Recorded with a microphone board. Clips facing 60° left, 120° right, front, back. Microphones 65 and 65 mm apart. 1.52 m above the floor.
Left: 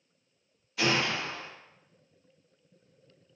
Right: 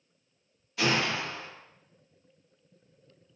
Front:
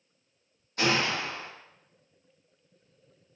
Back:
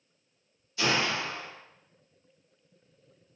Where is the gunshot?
30° right, 1.0 m.